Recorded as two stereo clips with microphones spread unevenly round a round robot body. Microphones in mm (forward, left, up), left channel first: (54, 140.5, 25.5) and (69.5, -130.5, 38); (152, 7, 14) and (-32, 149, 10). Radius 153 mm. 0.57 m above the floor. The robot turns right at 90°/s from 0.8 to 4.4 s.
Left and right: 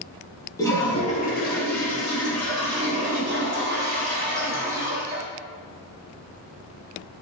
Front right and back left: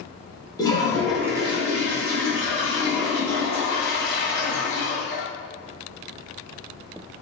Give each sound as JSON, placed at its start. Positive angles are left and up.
{"t": 0.6, "sound": "a toilet flushing", "azimuth_deg": 25, "distance_m": 1.0}